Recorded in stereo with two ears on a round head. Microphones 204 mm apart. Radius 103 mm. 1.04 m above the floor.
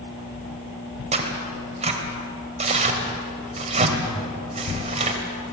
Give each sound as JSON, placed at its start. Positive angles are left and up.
{"t": 1.1, "sound": "tearing paper", "side_deg": -30, "distance_m": 3.5}